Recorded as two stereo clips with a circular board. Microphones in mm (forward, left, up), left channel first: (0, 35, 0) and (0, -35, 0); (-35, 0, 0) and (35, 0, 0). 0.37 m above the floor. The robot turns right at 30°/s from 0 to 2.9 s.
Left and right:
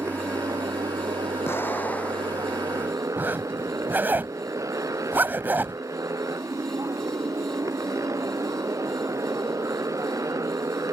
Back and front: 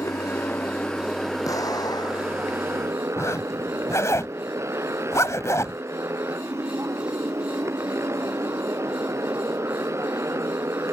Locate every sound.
0.0 s a motorcycle: 135° right; by 10.9 s 50° right
1.4 s an explosion: 145° left; by 2.6 s straight behind
3.2 s a zipper: 145° right